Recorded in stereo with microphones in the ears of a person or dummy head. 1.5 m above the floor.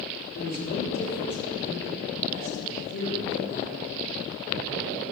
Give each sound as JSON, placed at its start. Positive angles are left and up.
{"t": 0.3, "sound": "a man speaking", "side_deg": 60, "distance_m": 4.5}